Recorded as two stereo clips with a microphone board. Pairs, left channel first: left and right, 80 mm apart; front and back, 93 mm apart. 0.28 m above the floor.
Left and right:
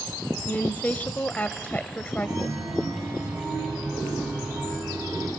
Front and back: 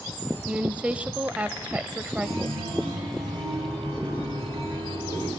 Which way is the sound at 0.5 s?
125° left.